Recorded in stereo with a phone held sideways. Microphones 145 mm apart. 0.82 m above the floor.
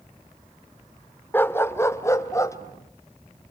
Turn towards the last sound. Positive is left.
turn(degrees=20)  # may be behind; listen again after turning